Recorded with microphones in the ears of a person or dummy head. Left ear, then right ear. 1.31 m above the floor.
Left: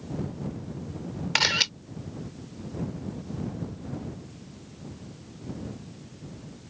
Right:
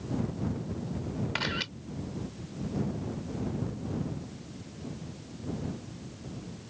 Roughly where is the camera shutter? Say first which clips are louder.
Left 10 dB; left.